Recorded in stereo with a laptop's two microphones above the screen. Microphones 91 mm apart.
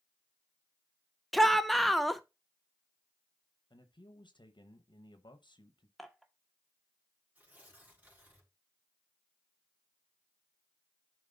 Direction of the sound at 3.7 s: 60° left (ahead or behind).